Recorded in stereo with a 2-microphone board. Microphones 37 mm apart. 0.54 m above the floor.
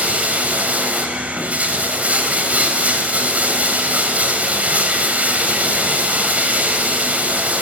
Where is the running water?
45° right (ahead or behind), 1.9 m.